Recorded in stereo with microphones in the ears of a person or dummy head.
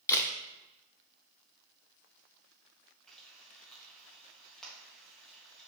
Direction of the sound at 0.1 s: 15° left (ahead or behind).